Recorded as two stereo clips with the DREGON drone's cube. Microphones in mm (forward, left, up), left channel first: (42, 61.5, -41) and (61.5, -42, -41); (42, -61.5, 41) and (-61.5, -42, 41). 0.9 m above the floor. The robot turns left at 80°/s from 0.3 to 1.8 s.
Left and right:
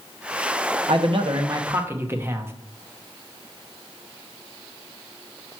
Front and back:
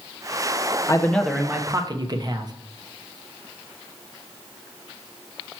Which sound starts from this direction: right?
A man speaking, at 0.9 s.